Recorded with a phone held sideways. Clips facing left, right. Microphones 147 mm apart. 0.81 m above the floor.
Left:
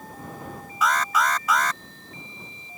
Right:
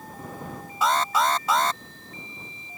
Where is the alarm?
30° right (ahead or behind).